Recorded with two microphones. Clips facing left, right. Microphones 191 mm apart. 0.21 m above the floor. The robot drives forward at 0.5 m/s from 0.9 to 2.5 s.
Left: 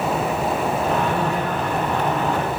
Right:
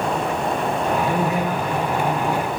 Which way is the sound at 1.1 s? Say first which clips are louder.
Right 1 dB; 20° right (ahead or behind).